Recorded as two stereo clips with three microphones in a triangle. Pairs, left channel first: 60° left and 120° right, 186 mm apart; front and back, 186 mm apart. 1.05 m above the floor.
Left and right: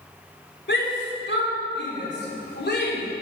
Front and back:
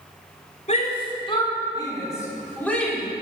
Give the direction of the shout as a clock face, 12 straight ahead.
10 o'clock.